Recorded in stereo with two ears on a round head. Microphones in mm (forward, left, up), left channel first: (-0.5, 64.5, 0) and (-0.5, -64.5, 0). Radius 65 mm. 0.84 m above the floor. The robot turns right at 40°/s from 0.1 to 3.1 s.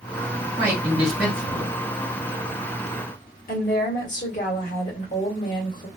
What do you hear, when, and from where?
0.6 s a man speaking: 25° right, 2 m; by 1.8 s 25° left, 2 m
3.5 s a woman speaking: 60° left (ahead or behind), 1.6 m